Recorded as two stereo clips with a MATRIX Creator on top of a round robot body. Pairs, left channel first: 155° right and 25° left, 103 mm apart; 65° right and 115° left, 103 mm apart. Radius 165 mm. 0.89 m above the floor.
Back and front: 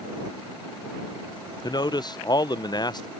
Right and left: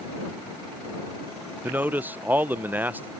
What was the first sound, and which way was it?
A man speaking, straight behind.